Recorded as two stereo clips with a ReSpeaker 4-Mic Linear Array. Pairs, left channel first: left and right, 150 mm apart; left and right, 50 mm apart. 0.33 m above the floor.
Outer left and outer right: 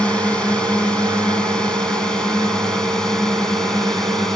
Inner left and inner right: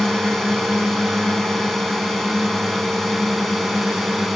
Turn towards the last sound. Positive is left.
turn(degrees=5)  # may be behind; listen again after turning